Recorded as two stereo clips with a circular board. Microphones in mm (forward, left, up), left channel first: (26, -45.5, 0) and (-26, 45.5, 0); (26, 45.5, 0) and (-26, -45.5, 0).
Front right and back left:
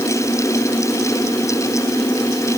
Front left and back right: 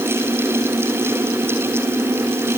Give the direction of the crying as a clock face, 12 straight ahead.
No crying in this recording.